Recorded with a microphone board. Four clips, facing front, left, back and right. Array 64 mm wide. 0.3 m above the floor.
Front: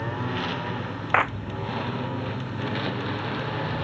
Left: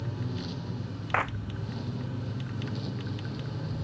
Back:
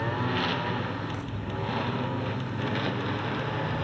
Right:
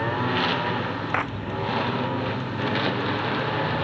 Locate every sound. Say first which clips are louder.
0.0 s a lawn mower: right 13 dB, back 1 dB; 95° right; by 3.9 s 85° right
1.1 s a clap: even, front 15 dB; 5° right